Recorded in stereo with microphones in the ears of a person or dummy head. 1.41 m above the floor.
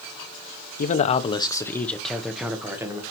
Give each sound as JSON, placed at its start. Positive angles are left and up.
{"t": 0.8, "sound": "a man speaking", "side_deg": 45, "distance_m": 0.8}